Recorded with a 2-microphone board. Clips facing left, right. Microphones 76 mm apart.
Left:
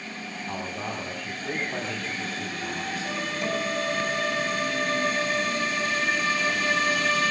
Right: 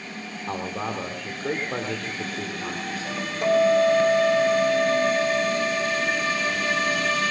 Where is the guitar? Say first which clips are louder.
Right 12 dB; 45° right (ahead or behind), 3.5 m.